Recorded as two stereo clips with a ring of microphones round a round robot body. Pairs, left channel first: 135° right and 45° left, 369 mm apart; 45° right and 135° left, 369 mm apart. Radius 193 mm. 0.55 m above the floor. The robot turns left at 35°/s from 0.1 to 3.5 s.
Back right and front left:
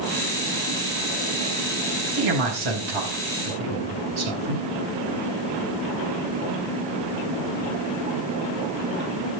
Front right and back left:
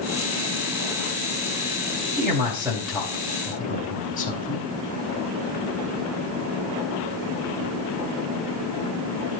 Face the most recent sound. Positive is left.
turn(degrees=25)